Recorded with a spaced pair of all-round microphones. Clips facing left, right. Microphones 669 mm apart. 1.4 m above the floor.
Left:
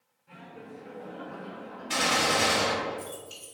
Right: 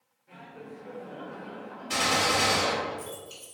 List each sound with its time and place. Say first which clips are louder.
0.3 s laughter: right 1 dB; 40° left (ahead or behind), 1.5 m; by 2.9 s 15° right (ahead or behind), 2 m
1.9 s a gunshot: even; 5° left (ahead or behind), 1.0 m